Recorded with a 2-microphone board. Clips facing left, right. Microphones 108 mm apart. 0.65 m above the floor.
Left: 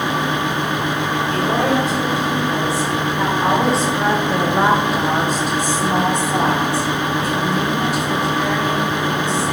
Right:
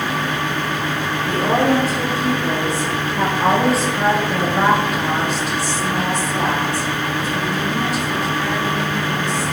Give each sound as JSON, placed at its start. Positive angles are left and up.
{"t": 1.3, "sound": "a woman speaking", "side_deg": -45, "distance_m": 2.0}